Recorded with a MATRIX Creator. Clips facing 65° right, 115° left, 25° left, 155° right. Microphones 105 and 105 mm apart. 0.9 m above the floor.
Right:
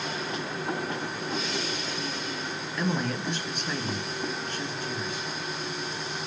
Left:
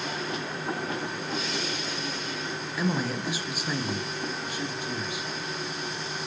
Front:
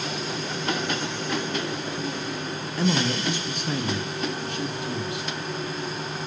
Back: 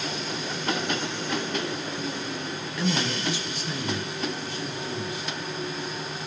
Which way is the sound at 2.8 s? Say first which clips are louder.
Left 1 dB, front 4 dB; 25° left.